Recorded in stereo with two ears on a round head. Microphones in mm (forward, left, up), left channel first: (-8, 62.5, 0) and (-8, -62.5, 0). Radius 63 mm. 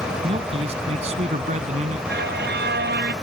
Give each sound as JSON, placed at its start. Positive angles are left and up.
{"t": 0.2, "sound": "a man speaking", "side_deg": -45}
{"t": 2.1, "sound": "a violin", "side_deg": -85}